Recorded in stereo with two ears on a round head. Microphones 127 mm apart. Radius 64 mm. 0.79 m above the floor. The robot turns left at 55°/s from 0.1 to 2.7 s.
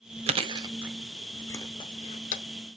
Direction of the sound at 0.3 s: 45° right (ahead or behind).